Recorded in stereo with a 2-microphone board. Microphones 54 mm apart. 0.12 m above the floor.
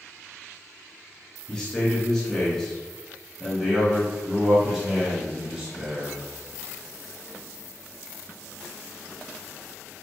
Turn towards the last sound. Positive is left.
turn(degrees=-15)  # may be behind; listen again after turning